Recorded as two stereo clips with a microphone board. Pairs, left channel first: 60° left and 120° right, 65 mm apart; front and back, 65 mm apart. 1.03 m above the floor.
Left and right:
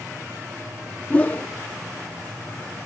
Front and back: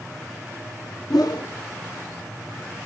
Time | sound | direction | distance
1.1 | a whoosh | 5° right | 1.0 m